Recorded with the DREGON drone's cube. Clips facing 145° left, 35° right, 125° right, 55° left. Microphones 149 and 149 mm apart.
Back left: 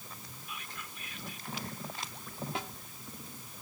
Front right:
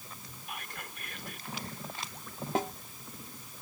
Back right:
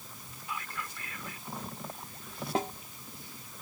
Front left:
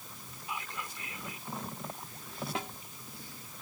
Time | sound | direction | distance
0.5 | whispering | 10° right | ?
2.5 | a snare drum | 75° right | ?